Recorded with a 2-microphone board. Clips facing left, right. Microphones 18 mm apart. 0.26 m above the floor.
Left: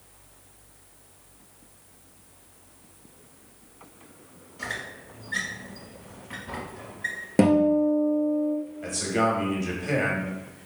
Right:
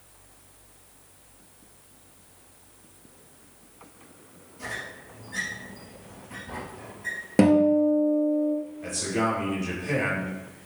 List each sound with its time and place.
4.6 s a squeak: 65° left (ahead or behind), 1.7 m
7.4 s a guitar: 5° right (ahead or behind), 0.9 m
8.8 s a man speaking: 20° left (ahead or behind), 1.2 m